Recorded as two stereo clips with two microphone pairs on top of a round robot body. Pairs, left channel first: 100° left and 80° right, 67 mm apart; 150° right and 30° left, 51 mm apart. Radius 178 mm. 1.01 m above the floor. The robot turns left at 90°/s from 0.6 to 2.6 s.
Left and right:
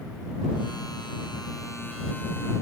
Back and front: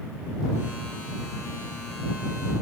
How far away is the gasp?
I don't hear a gasp.